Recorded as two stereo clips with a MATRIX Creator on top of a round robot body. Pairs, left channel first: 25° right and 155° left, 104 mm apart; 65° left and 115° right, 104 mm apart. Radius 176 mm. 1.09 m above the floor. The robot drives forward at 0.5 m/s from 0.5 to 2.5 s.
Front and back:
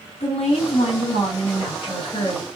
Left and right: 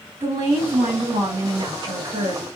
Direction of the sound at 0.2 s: 45° right.